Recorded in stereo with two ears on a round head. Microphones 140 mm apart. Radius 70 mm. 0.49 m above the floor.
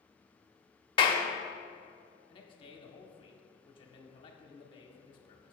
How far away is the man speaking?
About 0.9 m.